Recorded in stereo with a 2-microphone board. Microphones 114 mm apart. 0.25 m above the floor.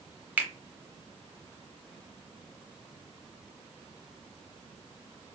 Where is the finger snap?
15° right (ahead or behind), 0.7 m.